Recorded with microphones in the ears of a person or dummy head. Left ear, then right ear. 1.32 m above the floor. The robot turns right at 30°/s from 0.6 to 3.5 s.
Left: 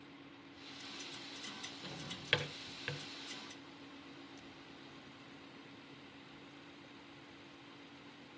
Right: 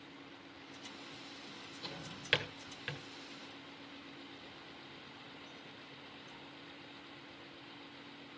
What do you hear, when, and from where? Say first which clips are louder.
1.8 s a drawer: right 1 dB; 25° right (ahead or behind), 1.5 m; by 3.0 s centre (ahead or behind), 1.5 m